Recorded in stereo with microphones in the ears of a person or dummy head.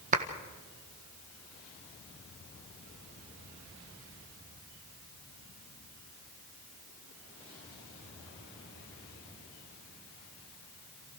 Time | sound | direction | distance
0.1 | a clap | 35° right (ahead or behind) | 1.6 m